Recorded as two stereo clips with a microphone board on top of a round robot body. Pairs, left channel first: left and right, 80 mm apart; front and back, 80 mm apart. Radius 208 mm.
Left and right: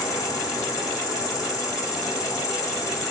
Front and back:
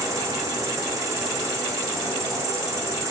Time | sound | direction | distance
0.0 | an insect | 130° left | 3 m